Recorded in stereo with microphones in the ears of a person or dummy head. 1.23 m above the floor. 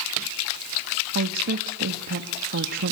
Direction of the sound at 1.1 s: 60° right (ahead or behind).